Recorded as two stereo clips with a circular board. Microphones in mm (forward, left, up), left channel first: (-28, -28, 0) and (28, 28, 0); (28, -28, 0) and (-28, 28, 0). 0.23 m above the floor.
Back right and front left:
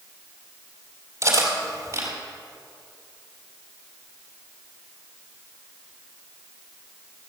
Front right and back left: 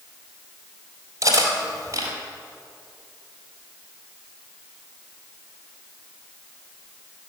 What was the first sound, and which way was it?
Cutlery clinking, 90° left.